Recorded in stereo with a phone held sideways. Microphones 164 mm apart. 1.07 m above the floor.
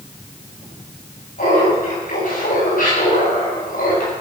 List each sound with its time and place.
1.4 s laughter: 75° left (ahead or behind), 8 m; by 4.1 s 65° left (ahead or behind), 8.5 m